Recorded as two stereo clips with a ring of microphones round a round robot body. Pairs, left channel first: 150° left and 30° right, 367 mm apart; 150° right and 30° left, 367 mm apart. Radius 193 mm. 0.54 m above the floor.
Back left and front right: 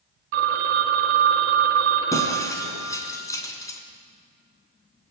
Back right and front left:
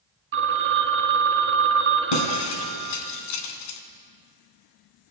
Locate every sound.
0.3 s a phone ringing: 30° right, 3 m
2.1 s breaking glass: 130° right, 3 m